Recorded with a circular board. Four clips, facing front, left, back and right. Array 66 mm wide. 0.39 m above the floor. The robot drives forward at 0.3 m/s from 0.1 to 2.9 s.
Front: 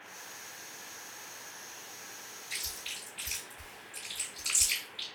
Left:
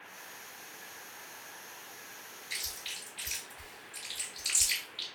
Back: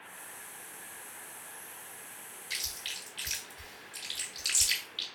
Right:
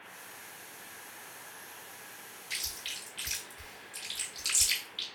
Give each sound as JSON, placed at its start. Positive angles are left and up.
{"t": 2.5, "sound": "chewing", "azimuth_deg": -145, "distance_m": 2.5}